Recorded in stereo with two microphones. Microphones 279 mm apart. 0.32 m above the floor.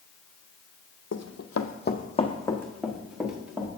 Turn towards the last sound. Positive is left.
turn(degrees=-5)  # may be behind; listen again after turning